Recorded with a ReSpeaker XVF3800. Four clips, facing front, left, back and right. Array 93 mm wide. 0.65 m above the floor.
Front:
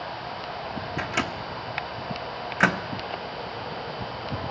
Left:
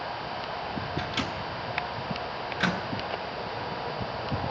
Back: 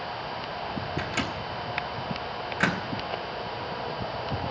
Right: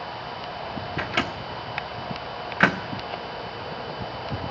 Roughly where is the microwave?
Ahead right.